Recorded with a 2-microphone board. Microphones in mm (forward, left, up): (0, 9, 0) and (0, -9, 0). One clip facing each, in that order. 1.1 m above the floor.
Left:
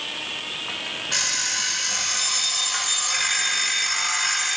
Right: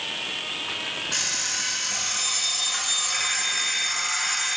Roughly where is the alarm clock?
Centre.